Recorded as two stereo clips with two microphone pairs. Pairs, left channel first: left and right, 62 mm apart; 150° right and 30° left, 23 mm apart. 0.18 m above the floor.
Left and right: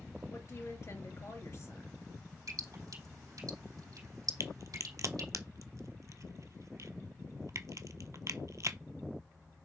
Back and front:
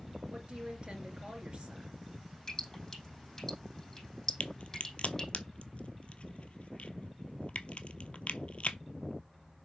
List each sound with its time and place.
0.3 s a woman speaking: 65° left, 2.5 m
2.5 s dripping: 75° right, 4 m
4.4 s a crack: 120° right, 0.7 m